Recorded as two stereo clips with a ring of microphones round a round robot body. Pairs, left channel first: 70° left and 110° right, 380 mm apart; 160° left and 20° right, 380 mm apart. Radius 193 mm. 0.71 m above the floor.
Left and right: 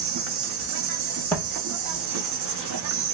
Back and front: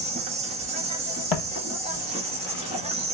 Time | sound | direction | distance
0.0 | an insect | 90° right | 0.8 m
1.3 | footsteps | 150° left | 1.4 m